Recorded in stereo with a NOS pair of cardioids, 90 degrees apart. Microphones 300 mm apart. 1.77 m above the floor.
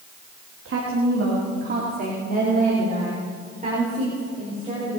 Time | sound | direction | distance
0.7 | a woman speaking | 45° right | 4 m